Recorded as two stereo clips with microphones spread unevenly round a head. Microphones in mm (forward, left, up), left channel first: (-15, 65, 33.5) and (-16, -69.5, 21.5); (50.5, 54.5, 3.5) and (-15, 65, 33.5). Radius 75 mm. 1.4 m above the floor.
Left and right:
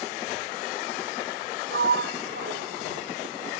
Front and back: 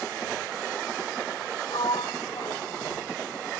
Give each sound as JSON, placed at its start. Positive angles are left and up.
{"t": 1.7, "sound": "a sliding door", "azimuth_deg": -75}